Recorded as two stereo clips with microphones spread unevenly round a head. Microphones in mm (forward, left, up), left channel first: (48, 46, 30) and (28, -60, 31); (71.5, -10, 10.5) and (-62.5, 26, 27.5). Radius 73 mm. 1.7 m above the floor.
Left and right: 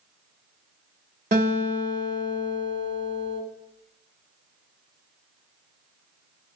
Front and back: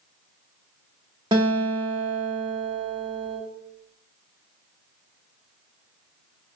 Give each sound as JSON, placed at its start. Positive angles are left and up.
{"t": 1.3, "sound": "a guitar", "azimuth_deg": -140, "distance_m": 0.5}